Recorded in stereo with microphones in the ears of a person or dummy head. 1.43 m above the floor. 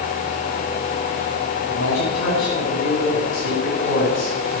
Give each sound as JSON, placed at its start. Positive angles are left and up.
{"t": 1.6, "sound": "a man speaking", "side_deg": 70, "distance_m": 8.0}